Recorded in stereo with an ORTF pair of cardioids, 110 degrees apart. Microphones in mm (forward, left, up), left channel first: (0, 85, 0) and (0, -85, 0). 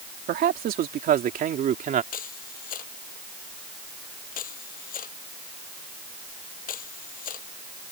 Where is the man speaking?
65° right; by 2.0 s 50° right.